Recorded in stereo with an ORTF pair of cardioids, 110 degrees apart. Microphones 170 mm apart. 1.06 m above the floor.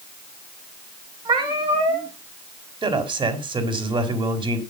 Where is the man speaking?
30° right, 4 m.